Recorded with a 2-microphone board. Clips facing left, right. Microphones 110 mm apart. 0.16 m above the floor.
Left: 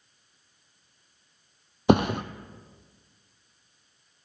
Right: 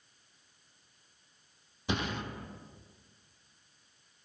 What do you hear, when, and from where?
1.9 s a thud: 65° left (ahead or behind), 1.0 m